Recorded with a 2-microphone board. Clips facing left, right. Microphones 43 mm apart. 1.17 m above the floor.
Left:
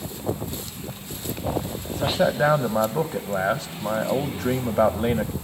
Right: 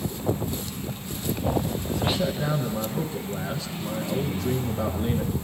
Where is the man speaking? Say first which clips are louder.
Left 6 dB; 45° left (ahead or behind), 1.3 m.